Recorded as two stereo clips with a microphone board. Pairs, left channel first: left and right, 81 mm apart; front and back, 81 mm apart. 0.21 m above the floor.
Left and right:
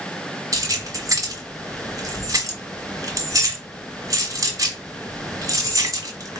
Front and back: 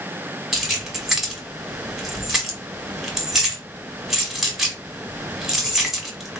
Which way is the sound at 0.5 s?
100° right.